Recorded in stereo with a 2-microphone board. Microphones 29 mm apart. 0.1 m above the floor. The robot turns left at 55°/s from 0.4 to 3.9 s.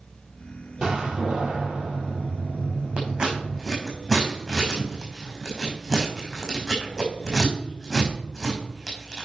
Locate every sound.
0.8 s a door slam: 35° right, 2.5 m; by 3.6 s 170° left, 2.5 m
3.0 s scissors: 45° right (ahead or behind), 4 m; by 9.3 s 5° left (ahead or behind), 4 m